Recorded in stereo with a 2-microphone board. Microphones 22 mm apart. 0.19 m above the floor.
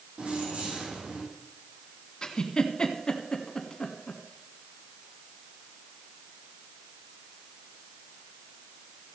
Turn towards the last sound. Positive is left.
turn(degrees=35)  # may be behind; listen again after turning